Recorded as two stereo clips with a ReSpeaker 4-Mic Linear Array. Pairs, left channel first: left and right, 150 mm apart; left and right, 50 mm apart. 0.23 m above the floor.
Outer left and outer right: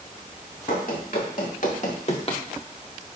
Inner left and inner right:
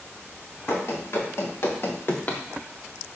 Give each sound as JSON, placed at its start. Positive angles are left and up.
{"t": 0.7, "sound": "running footsteps", "side_deg": 75, "distance_m": 3.5}